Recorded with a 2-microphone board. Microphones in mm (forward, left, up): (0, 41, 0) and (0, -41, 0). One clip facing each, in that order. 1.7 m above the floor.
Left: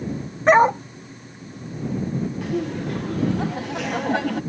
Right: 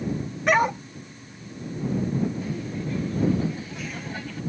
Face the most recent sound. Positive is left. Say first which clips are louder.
# left 6 dB
turn(degrees=75)  # may be behind; listen again after turning